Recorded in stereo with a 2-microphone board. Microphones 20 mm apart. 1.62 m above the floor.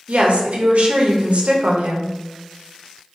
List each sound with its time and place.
0.1 s a woman speaking: 75° right (ahead or behind), 0.7 m